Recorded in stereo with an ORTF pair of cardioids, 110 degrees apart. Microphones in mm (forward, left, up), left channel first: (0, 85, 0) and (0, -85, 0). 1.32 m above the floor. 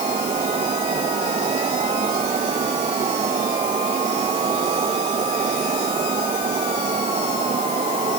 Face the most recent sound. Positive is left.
turn(degrees=-35)